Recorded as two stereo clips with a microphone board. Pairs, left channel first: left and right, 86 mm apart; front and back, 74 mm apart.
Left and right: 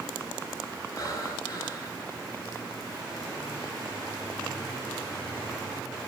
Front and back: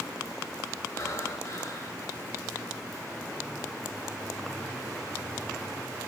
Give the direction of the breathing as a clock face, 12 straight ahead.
11 o'clock.